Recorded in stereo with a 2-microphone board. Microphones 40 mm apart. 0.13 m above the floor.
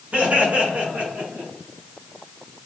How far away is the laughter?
About 1.9 m.